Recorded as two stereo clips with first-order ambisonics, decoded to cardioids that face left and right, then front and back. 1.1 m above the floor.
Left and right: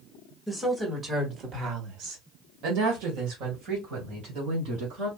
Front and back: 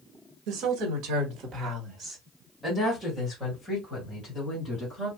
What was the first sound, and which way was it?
A woman speaking, 170° right.